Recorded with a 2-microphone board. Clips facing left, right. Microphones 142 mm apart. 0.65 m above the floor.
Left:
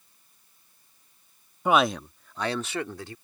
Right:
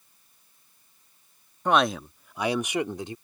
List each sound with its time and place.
1.6 s a man speaking: 10° left (ahead or behind); by 3.1 s 20° right (ahead or behind)